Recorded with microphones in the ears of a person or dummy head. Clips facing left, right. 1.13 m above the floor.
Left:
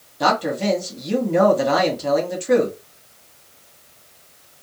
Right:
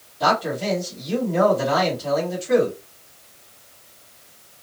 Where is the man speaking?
55° left (ahead or behind), 1.5 m.